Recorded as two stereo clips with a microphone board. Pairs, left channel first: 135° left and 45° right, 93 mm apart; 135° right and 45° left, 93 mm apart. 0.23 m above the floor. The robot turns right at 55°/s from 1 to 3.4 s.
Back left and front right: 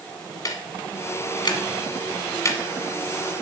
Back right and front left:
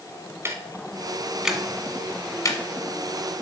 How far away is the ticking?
About 1.6 m.